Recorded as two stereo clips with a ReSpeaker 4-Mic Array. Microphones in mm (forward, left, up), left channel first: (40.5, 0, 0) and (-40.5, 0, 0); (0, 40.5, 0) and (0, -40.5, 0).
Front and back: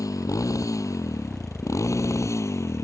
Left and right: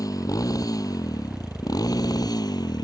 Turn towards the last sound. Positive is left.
turn(degrees=55)